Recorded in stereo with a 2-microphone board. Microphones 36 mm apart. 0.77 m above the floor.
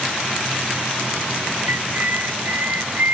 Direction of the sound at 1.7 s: 60° right (ahead or behind).